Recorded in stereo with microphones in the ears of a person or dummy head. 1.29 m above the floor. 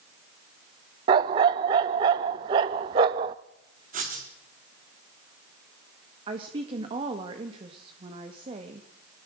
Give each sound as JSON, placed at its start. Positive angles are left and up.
{"t": 1.1, "sound": "a dog barking", "side_deg": -15, "distance_m": 0.6}
{"t": 3.9, "sound": "writing", "side_deg": -45, "distance_m": 4.0}
{"t": 6.3, "sound": "a woman speaking", "side_deg": -30, "distance_m": 1.9}